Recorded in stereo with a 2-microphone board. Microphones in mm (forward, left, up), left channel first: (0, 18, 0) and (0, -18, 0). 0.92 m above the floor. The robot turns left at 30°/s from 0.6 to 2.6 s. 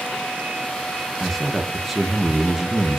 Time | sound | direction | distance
1.2 | a man speaking | 5° left (ahead or behind) | 0.6 m